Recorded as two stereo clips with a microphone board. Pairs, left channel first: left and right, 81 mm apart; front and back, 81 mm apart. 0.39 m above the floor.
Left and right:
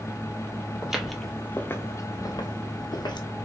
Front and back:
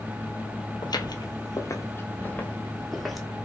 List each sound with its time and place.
0.8 s footsteps: 10° right, 0.7 m; by 3.3 s 90° left, 1.0 m